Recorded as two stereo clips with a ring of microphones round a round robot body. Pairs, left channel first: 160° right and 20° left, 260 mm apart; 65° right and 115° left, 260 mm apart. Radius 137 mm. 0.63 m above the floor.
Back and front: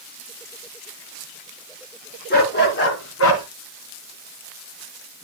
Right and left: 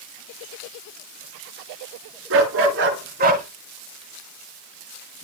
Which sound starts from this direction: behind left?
A dog barking, at 2.3 s.